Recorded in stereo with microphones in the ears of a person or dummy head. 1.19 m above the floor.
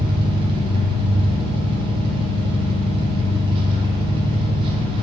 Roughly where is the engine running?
Right.